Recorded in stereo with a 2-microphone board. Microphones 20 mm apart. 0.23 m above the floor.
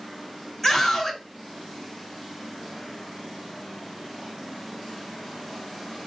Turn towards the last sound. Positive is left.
turn(degrees=0)  # may be behind; listen again after turning